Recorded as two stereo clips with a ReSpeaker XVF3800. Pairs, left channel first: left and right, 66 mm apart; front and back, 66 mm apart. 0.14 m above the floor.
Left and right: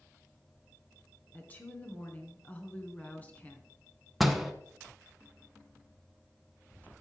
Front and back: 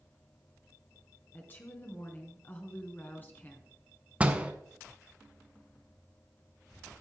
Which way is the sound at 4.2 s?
175° right.